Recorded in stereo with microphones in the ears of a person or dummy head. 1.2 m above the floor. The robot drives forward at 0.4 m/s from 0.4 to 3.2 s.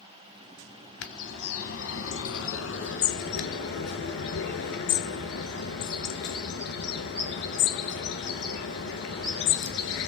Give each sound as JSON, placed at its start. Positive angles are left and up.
{"t": 1.0, "sound": "a bird", "side_deg": 70, "distance_m": 1.5}